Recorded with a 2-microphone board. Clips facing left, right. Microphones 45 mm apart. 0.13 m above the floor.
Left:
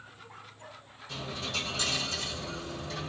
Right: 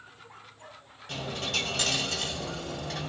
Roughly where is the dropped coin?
Right.